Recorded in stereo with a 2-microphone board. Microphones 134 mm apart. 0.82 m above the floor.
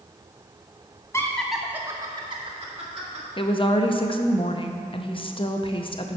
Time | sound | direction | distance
1.1 | laughter | 20° left (ahead or behind) | 0.8 m
3.4 | a woman speaking | 40° left (ahead or behind) | 0.6 m